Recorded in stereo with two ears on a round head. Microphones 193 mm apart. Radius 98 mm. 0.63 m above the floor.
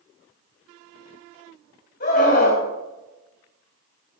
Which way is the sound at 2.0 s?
45° left (ahead or behind).